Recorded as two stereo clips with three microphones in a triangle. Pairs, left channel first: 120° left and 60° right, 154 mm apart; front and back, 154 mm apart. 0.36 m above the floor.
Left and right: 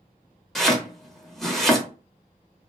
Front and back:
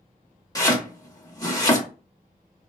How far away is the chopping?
About 0.8 m.